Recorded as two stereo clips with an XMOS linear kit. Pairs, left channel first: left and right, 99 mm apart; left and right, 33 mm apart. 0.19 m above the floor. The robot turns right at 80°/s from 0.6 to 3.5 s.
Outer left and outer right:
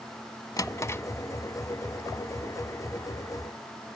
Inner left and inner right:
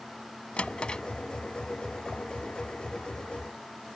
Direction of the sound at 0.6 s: 35° left (ahead or behind).